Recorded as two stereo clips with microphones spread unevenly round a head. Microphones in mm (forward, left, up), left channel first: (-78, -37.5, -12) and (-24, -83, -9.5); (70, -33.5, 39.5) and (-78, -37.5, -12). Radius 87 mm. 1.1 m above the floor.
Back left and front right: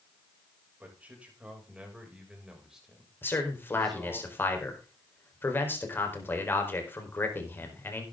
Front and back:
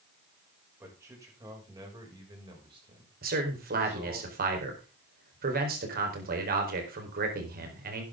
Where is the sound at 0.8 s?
110° right, 6.5 m; by 4.2 s 135° right, 6 m.